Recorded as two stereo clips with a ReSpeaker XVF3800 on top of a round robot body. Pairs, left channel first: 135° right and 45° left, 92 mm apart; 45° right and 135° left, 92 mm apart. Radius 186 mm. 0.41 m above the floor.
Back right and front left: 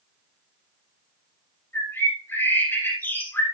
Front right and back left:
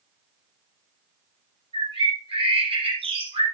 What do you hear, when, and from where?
1.7 s a bird: 155° left, 4 m